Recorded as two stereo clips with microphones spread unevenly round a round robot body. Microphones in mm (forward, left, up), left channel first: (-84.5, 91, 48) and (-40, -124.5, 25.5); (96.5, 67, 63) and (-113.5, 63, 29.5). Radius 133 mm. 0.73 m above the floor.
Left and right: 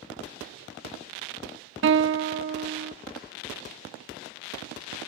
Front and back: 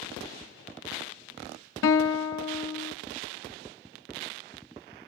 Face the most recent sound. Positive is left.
turn(degrees=-40)